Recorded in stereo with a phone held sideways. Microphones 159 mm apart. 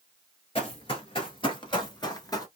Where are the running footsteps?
35° left (ahead or behind), 1.5 m; by 2.5 s 25° left (ahead or behind), 1.2 m.